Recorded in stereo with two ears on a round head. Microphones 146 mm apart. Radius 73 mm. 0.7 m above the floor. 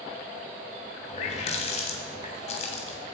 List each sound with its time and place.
1.1 s a running tap: 40° left (ahead or behind), 2.5 m